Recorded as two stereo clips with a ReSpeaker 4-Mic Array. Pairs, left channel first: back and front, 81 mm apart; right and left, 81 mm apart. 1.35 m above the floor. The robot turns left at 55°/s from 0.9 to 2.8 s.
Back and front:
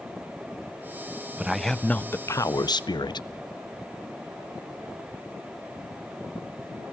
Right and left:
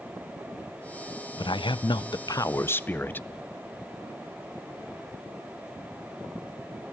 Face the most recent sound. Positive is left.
turn(degrees=-155)